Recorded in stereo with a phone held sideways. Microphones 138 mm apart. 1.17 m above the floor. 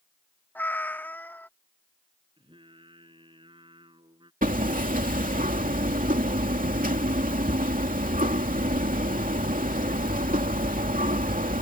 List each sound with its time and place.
0.6 s a cat meowing: 15° left (ahead or behind)
2.4 s singing: 35° right (ahead or behind)
4.4 s hammering: 80° right